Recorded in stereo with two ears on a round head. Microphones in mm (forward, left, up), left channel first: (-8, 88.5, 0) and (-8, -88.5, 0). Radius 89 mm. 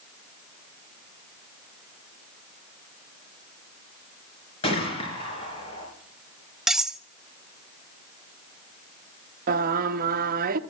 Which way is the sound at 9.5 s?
45° right (ahead or behind).